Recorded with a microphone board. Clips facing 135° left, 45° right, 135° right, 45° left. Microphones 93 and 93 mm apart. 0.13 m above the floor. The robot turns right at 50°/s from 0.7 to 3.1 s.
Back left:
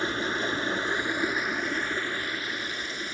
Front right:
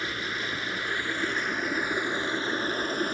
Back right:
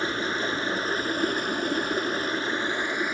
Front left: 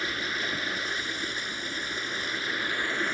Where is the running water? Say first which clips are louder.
Back left 4 dB, back right 5 dB; straight behind, 0.8 m; by 3.1 s 60° right, 0.8 m.